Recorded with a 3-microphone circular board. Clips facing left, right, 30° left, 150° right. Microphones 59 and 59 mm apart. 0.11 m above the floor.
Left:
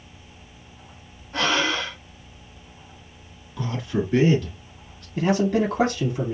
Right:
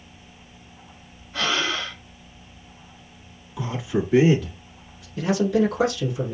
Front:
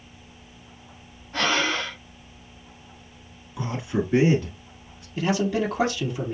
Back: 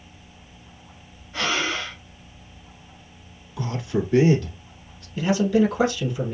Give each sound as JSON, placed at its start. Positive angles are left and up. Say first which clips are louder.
{"t": 1.3, "sound": "breathing", "louder": "left 2 dB, front 1 dB", "azimuth_deg": 70, "distance_m": 3.0}
{"t": 3.6, "sound": "a man speaking", "louder": "right 1 dB, back 1 dB", "azimuth_deg": -20, "distance_m": 1.2}
{"t": 5.2, "sound": "a man speaking", "louder": "even, back 4 dB", "azimuth_deg": 85, "distance_m": 3.0}